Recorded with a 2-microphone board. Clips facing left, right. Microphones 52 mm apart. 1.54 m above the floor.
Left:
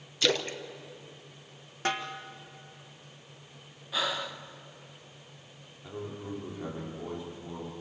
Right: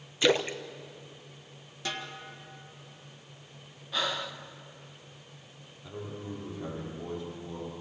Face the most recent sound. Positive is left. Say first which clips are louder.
# left 1 dB
turn(degrees=15)  # may be behind; listen again after turning